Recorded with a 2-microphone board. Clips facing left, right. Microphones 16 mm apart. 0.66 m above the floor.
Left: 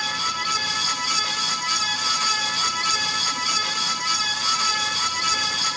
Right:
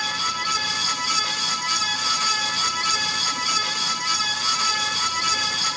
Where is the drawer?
No drawer in this recording.